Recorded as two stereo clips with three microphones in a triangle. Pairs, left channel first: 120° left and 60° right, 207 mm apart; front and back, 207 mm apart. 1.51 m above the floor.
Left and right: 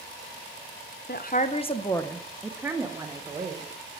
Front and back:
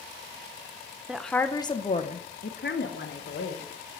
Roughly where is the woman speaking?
Left.